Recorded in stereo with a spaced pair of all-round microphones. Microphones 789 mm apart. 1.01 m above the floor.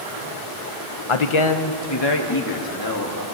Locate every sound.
1.1 s a man speaking: 40° left (ahead or behind), 0.7 m; by 3.2 s 25° left (ahead or behind), 2 m